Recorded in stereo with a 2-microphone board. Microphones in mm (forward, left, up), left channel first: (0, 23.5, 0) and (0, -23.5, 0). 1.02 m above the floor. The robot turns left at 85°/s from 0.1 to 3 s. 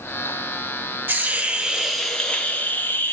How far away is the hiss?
About 0.9 m.